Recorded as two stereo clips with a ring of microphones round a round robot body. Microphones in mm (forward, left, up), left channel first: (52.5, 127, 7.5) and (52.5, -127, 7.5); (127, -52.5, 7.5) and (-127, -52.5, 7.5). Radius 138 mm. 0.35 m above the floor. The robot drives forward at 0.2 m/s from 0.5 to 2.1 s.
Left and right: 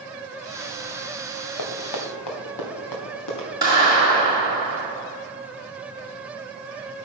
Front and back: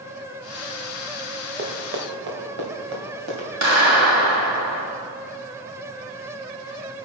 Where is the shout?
No shout in this recording.